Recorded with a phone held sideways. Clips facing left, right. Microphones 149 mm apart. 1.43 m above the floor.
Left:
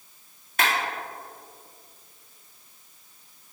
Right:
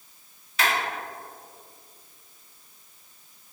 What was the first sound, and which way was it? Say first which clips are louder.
A clap: left 1 dB; 50° left (ahead or behind).